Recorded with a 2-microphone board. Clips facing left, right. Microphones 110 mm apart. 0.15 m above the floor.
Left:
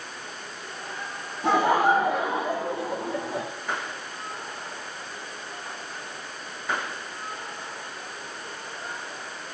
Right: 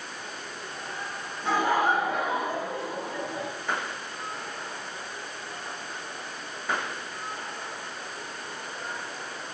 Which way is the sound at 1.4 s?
75° left (ahead or behind).